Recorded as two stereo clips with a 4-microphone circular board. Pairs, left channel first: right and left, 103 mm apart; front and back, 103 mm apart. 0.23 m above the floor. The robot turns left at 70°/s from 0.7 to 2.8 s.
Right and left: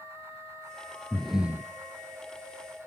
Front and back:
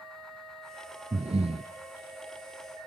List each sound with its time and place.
1.1 s breathing: 165° right, 0.6 m; by 1.7 s 155° left, 0.6 m